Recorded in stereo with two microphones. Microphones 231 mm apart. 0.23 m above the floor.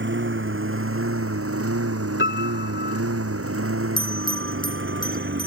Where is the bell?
20° left (ahead or behind).